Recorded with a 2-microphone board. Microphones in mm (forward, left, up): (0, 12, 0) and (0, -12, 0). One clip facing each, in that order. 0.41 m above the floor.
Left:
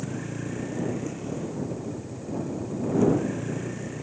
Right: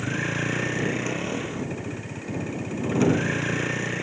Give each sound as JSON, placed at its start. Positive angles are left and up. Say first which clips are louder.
{"t": 0.0, "sound": "a vehicle", "louder": "right 7 dB", "side_deg": -55}